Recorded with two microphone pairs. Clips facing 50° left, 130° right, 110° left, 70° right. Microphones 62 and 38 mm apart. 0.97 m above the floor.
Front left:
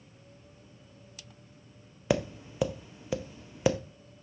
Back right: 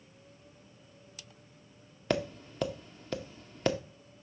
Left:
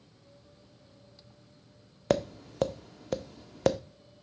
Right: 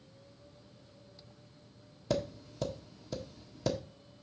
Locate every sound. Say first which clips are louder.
2.1 s tapping: front left 3 dB, left 6 dB; 130° left, 0.7 m